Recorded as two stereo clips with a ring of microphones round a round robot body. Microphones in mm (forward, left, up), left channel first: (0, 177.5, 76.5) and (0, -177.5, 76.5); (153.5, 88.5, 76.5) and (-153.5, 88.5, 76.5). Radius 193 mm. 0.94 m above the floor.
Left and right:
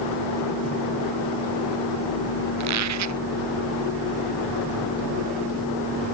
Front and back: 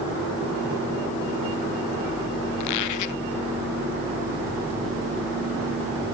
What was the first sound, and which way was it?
A squeak, 45° right.